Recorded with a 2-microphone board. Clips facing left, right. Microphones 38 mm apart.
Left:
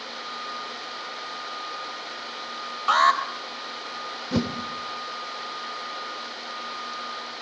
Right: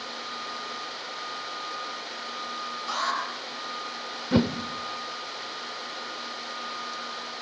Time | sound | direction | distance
2.9 | an alarm | 55° left (ahead or behind) | 3 m
4.3 | a whoosh | 20° right (ahead or behind) | 1.2 m